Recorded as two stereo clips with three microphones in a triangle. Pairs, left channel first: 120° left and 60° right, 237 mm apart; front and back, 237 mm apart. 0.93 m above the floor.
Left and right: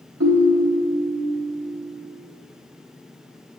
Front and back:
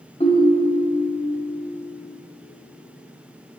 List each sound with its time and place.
0.2 s a ringtone: 65° right, 1.4 m